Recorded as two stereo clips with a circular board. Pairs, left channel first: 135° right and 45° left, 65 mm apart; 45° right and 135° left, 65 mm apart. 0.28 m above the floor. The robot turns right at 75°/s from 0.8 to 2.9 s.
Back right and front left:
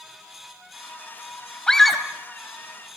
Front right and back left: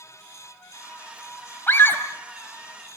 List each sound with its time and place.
1.7 s a scream: 65° right, 1.9 m; by 2.0 s 35° right, 1.9 m